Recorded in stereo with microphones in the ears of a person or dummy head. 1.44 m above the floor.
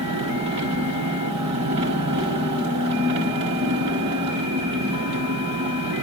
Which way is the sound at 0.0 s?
30° right (ahead or behind).